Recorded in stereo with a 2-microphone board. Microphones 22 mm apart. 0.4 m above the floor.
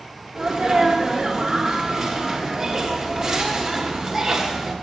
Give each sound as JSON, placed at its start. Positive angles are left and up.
{"t": 0.3, "sound": "a sneeze", "side_deg": -15, "distance_m": 1.2}